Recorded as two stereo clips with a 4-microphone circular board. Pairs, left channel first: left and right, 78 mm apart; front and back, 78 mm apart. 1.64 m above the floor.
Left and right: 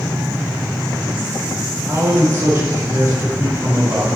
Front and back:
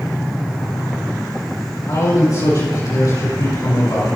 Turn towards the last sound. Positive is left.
turn(degrees=-40)